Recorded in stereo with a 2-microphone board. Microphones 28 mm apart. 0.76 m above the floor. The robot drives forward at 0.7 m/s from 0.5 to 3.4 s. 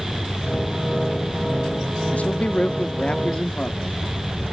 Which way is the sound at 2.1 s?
55° left (ahead or behind).